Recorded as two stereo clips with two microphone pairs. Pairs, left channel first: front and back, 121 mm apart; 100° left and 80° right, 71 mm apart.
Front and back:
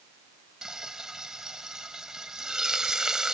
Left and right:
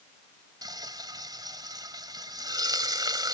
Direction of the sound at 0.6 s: 95° right.